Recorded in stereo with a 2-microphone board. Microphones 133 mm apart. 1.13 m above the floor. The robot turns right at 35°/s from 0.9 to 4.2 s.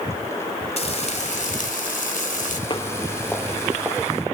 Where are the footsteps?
35° left (ahead or behind), 1.6 m; by 4.0 s 20° right (ahead or behind), 2.5 m.